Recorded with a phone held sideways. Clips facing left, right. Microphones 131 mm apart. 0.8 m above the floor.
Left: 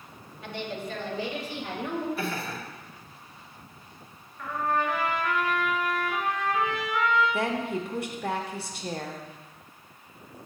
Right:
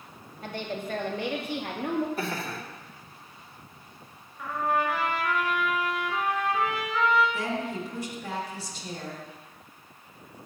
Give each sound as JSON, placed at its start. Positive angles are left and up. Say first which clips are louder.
{"t": 0.4, "sound": "a woman speaking", "louder": "right 1 dB", "side_deg": -40, "distance_m": 1.5}
{"t": 2.2, "sound": "laughter", "louder": "even", "side_deg": -40, "distance_m": 2.0}
{"t": 4.4, "sound": "a trumpet", "louder": "right 1 dB", "side_deg": -10, "distance_m": 3.0}
{"t": 7.3, "sound": "a woman speaking", "louder": "left 3 dB", "side_deg": 60, "distance_m": 1.2}